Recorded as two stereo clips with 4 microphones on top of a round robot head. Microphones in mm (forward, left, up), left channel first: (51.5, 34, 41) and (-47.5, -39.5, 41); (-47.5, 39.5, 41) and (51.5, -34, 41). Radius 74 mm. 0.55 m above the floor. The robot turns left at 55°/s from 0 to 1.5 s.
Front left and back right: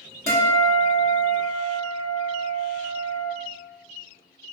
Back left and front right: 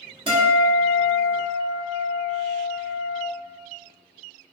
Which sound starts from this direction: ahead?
A guitar, at 0.3 s.